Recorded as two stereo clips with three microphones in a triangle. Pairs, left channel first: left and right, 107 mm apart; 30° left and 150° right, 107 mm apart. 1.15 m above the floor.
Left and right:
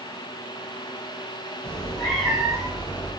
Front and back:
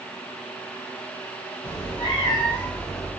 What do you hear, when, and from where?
1.6 s a cat meowing: 10° left, 1.8 m; by 3.1 s 20° right, 1.5 m